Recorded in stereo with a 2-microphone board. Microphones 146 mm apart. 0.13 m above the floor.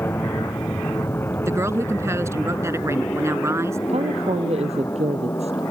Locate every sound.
0.0 s an aircraft: 15° left (ahead or behind)
1.4 s a woman speaking: 20° right (ahead or behind)
3.9 s a woman speaking: 45° right (ahead or behind)